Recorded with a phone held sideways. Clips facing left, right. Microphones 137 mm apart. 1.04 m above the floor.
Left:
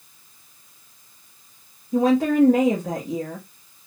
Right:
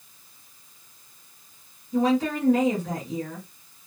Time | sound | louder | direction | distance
1.9 | a woman speaking | left 5 dB | 45° left (ahead or behind) | 1.2 m